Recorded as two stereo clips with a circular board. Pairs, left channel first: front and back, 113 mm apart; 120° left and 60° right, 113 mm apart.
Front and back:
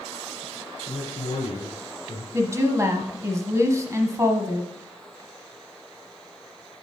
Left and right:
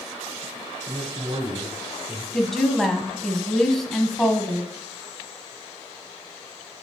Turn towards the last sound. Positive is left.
turn(degrees=-160)